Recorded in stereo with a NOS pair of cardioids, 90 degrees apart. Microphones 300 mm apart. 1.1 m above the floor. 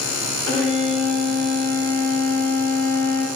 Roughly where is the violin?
Left.